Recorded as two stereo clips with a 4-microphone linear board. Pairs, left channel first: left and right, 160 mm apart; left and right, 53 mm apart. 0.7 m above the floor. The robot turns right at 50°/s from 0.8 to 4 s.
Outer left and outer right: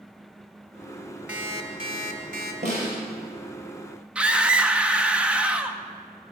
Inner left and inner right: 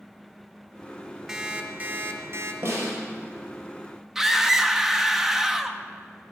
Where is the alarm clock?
175° right, 1.8 m; by 2.5 s 110° right, 1.8 m.